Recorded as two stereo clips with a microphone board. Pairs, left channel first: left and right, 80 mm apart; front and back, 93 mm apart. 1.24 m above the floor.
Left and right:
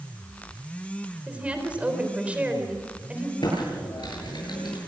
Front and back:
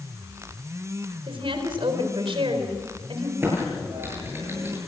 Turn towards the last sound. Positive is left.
turn(degrees=115)